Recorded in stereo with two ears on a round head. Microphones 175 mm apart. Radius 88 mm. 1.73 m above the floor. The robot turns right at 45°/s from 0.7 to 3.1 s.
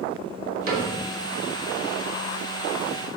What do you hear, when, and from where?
0.7 s a cupboard door: 45° right (ahead or behind), 3 m; by 0.9 s 40° right (ahead or behind), 3 m